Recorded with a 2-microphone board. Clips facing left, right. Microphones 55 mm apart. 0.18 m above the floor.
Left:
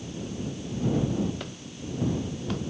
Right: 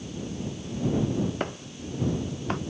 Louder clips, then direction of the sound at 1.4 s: Right 5 dB; 35° right (ahead or behind).